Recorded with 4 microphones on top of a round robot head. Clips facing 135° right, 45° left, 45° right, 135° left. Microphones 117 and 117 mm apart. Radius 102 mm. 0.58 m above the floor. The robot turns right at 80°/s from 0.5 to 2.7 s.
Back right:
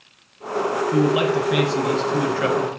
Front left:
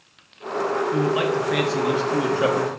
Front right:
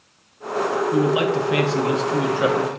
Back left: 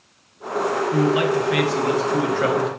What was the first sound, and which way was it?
A man speaking, 105° right.